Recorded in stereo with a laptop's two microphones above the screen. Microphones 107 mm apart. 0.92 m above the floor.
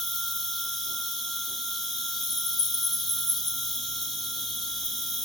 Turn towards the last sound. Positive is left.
turn(degrees=0)  # may be behind; listen again after turning